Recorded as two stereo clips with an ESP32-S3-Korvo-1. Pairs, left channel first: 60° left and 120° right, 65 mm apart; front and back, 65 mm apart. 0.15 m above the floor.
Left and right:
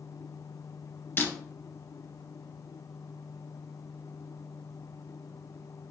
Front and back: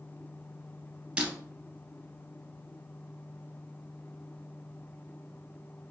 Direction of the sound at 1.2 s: 105° left.